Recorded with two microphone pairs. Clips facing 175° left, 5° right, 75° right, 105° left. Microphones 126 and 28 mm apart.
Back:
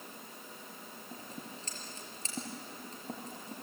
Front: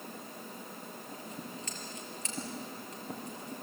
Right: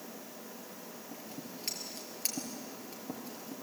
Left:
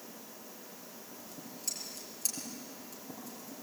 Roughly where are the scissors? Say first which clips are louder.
Front 2 dB, right 3 dB; behind right.